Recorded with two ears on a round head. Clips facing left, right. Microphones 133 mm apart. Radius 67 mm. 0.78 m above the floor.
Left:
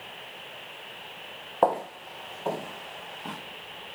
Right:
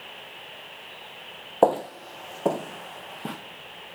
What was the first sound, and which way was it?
Footsteps, 35° right (ahead or behind).